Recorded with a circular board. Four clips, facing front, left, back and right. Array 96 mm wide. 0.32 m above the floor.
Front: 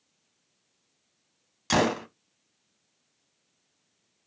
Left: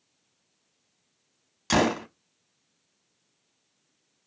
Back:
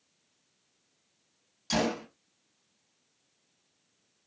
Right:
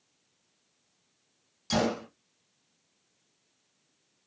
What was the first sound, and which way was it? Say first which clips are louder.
A gunshot: left 5 dB, front 5 dB; 45° left.